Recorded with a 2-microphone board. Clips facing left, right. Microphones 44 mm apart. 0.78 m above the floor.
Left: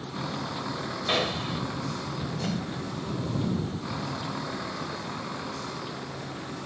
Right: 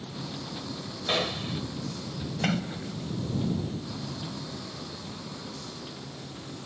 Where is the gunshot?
5° left (ahead or behind).